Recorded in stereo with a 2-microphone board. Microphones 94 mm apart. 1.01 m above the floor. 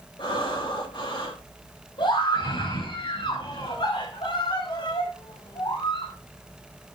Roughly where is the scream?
Left.